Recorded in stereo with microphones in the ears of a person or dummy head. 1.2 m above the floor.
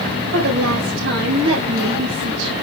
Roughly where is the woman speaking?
Right.